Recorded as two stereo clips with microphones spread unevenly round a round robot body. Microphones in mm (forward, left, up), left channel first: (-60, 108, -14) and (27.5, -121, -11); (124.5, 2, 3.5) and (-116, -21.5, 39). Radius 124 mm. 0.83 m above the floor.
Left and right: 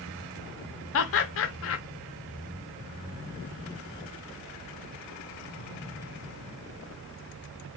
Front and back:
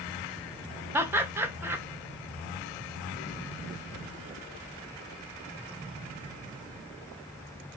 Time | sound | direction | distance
0.9 | laughter | 100° left | 0.6 m